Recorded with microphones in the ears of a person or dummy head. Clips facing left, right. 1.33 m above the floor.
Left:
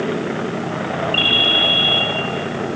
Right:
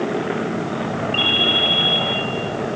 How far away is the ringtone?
About 3 m.